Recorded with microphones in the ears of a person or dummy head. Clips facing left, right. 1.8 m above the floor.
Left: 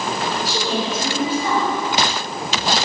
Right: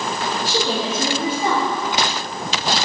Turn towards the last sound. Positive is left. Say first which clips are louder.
# right 1 dB
turn(degrees=-65)  # may be behind; listen again after turning